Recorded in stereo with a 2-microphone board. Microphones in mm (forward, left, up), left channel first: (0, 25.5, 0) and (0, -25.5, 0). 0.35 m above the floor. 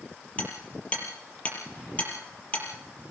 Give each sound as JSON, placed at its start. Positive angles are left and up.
{"t": 0.4, "sound": "hammering", "side_deg": 25, "distance_m": 5.5}